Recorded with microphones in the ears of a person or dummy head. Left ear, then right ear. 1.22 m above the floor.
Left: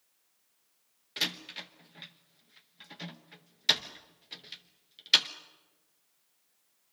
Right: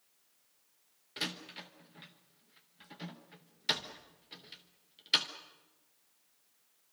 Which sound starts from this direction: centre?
A door slam, at 1.2 s.